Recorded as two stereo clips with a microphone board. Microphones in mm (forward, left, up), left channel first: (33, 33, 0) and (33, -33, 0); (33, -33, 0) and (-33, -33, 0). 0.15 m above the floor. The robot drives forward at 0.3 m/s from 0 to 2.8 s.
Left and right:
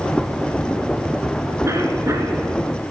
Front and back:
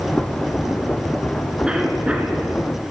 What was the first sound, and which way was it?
A cough, 105° right.